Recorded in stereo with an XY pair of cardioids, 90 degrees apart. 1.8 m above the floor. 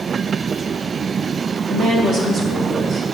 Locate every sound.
1.7 s a woman speaking: 70° right, 1.9 m